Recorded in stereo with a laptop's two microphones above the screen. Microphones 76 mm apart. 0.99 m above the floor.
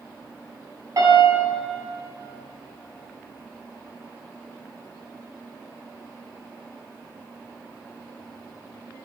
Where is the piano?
45° right (ahead or behind), 3 m.